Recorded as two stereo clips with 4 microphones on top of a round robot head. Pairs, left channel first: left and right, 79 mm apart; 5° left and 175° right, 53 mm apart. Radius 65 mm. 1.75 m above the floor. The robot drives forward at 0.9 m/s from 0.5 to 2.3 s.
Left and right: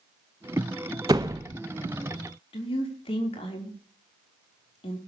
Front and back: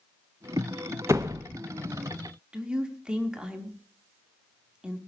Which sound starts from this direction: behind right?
A door slam, at 1.1 s.